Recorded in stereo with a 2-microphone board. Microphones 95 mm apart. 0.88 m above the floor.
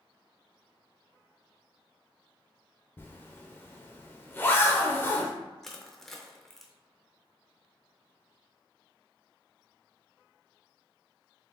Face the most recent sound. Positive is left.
turn(degrees=5)  # may be behind; listen again after turning